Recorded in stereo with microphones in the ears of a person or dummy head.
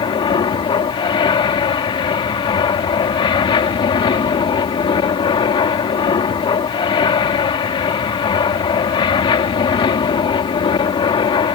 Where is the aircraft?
20° left (ahead or behind).